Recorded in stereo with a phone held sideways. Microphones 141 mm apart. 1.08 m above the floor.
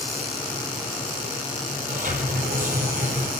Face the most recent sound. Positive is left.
turn(degrees=-70)  # may be behind; listen again after turning